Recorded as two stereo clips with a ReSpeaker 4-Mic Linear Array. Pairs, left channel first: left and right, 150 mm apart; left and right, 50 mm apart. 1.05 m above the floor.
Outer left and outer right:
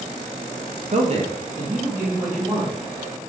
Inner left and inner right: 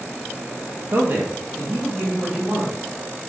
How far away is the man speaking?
About 0.7 m.